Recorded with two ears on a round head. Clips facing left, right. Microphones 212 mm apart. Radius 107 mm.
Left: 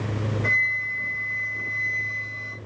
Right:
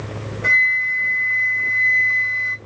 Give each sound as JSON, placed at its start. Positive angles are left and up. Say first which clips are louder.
{"t": 0.4, "sound": "a flute", "louder": "right 2 dB", "side_deg": -15, "distance_m": 1.9}